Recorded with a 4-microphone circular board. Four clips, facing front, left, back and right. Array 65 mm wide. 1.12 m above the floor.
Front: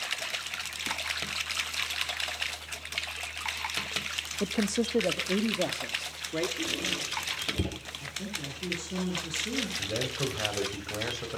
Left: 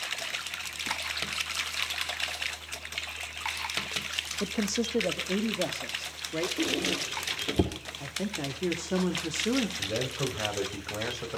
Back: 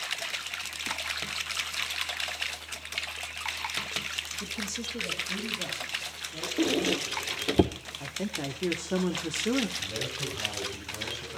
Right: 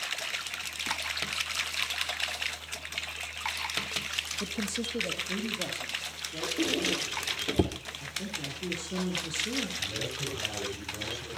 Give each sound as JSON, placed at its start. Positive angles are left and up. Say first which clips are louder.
{"t": 4.4, "sound": "a man speaking", "louder": "left 6 dB, front 13 dB", "azimuth_deg": 25, "distance_m": 1.2}
{"t": 6.6, "sound": "a squeak", "louder": "right 4 dB, back 7 dB", "azimuth_deg": 180, "distance_m": 2.0}
{"t": 8.0, "sound": "a woman speaking", "louder": "left 6 dB, back 6 dB", "azimuth_deg": 140, "distance_m": 2.5}
{"t": 9.8, "sound": "a man speaking", "louder": "left 5 dB, front 3 dB", "azimuth_deg": 50, "distance_m": 7.0}